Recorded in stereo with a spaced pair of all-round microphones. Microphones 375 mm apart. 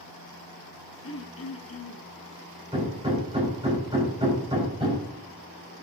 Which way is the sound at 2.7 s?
15° right (ahead or behind).